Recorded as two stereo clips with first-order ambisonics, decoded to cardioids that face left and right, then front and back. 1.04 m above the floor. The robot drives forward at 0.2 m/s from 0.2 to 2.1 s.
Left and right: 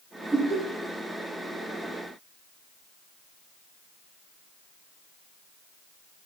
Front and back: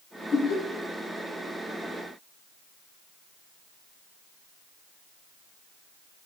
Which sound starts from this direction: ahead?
Laughter, at 0.3 s.